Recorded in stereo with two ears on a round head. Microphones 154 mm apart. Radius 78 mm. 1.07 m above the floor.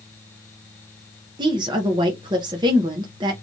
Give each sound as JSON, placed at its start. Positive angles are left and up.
{"t": 1.4, "sound": "a woman speaking", "side_deg": -25, "distance_m": 0.6}